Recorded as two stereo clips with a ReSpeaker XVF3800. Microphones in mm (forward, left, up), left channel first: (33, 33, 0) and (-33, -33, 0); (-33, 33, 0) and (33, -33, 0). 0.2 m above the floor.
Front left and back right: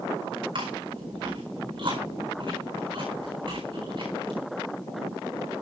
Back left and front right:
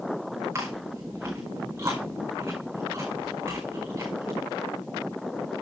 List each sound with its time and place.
0.6 s chewing: 110° right, 4.5 m